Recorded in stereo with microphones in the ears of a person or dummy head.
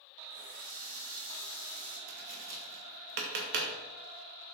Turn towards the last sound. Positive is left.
turn(degrees=-60)  # may be behind; listen again after turning